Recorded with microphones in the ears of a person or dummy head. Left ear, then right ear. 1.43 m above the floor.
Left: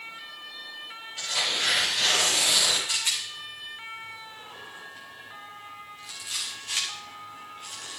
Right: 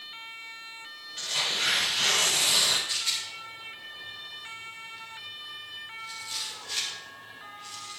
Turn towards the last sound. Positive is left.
turn(degrees=35)  # may be behind; listen again after turning